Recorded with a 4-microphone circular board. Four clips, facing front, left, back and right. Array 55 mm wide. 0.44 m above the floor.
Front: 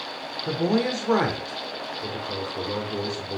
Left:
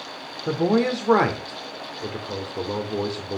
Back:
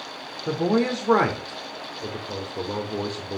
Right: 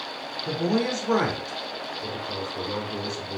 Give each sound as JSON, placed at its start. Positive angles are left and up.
{"t": 0.5, "sound": "a man speaking", "azimuth_deg": 110, "distance_m": 1.0}